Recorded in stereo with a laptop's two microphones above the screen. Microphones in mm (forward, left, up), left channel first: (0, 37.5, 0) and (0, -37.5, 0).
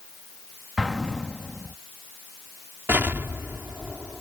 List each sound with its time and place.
0.8 s an explosion: centre (ahead or behind)
2.9 s an explosion: 30° right (ahead or behind)